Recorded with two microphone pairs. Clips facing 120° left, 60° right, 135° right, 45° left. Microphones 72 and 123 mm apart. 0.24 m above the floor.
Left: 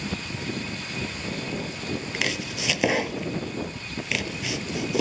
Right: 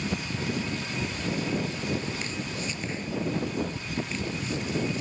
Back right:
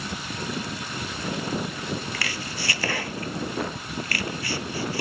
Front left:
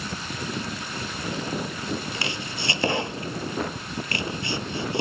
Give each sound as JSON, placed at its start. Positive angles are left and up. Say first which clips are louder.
{"t": 2.1, "sound": "chopping", "louder": "left 4 dB, front left 1 dB", "azimuth_deg": 115}